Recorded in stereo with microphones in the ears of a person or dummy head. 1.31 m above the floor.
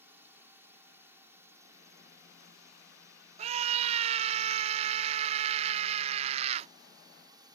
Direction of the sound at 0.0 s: 10° right (ahead or behind).